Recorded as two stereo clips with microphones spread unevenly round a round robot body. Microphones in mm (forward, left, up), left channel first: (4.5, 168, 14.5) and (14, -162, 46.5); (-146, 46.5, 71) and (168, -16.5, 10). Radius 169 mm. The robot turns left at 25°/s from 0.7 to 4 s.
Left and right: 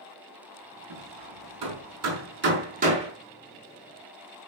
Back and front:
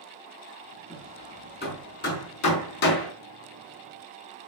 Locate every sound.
0.9 s hammering: 110° right, 5 m; by 3.1 s 165° right, 5 m